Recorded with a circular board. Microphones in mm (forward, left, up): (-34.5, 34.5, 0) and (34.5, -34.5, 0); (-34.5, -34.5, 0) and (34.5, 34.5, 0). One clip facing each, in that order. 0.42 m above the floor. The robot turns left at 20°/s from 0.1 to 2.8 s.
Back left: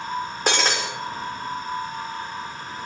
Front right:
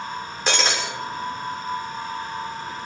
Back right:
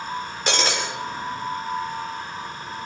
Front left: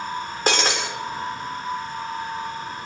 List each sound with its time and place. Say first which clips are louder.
0.5 s breaking glass: back left 1 dB, front left 2 dB; 95° left, 7.5 m; by 0.8 s 90° left, 7.5 m